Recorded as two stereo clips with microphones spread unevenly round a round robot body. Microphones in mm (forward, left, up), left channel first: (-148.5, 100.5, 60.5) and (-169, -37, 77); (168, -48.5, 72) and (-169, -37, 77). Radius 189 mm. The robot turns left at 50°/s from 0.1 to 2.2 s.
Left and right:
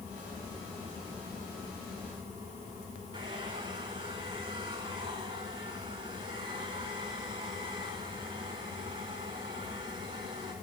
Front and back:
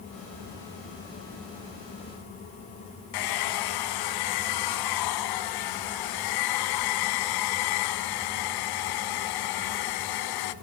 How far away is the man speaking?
No man speaking in this recording.